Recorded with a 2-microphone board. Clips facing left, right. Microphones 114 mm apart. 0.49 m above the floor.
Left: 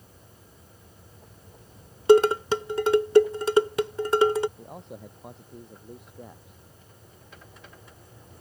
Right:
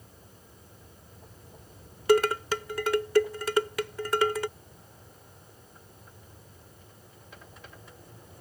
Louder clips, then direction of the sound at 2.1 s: Left 6 dB; 25° left (ahead or behind).